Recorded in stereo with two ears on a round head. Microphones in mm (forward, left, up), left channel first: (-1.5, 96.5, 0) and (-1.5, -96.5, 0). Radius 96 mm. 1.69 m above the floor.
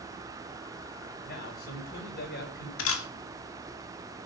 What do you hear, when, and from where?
1.2 s a man speaking: 45° left (ahead or behind), 6.5 m
2.8 s a camera shutter: 65° left (ahead or behind), 2.5 m